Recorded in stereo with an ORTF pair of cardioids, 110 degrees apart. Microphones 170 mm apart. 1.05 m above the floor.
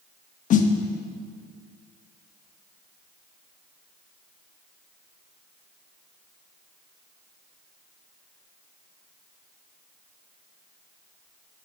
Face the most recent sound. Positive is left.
turn(degrees=50)